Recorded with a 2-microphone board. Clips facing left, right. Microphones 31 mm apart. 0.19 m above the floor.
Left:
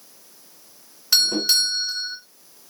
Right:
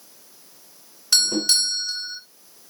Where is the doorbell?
5° left (ahead or behind), 3 m.